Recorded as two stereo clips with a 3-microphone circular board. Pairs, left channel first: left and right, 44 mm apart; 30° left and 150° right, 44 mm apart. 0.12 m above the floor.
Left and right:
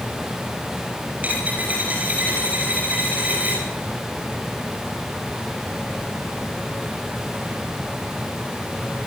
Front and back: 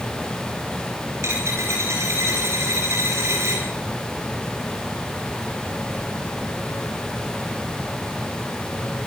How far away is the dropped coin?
About 10 m.